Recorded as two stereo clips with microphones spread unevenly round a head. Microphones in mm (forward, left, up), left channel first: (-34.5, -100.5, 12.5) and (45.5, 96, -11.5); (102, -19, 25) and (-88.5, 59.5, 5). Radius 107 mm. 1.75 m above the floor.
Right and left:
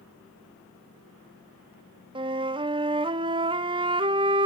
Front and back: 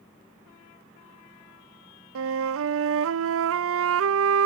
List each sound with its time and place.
2.1 s a flute: 140° left, 0.6 m